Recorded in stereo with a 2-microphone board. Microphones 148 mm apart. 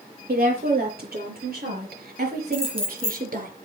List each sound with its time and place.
0.3 s a woman speaking: 70° right (ahead or behind), 7 m; by 3.5 s 65° right (ahead or behind), 5 m
2.5 s keys jangling: 40° right (ahead or behind), 2.5 m